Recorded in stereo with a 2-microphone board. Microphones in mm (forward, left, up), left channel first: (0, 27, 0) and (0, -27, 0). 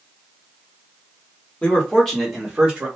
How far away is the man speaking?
About 1.3 m.